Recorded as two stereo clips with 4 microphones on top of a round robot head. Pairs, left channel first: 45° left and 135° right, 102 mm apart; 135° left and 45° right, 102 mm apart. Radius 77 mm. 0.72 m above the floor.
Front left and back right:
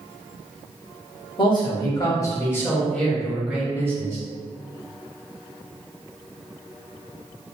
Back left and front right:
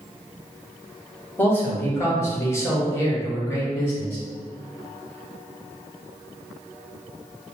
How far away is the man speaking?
About 1.5 m.